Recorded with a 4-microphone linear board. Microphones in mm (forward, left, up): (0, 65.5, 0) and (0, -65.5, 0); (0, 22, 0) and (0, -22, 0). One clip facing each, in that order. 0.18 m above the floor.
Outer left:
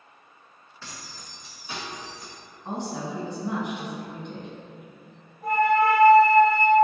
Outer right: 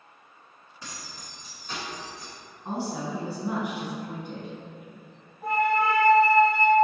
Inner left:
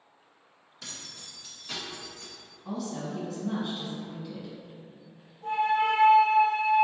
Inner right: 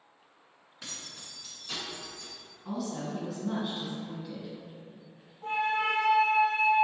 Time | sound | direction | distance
0.8 | keys jangling | 15° right (ahead or behind) | 1.6 m
2.6 | a woman speaking | 5° right (ahead or behind) | 1.3 m
5.4 | a flute | 30° right (ahead or behind) | 1.6 m